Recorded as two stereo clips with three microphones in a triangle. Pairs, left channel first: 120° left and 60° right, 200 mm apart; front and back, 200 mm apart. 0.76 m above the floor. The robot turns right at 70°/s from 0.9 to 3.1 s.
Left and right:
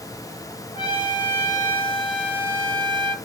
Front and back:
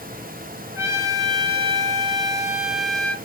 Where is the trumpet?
130° left, 0.7 m; by 3.1 s 75° right, 0.7 m.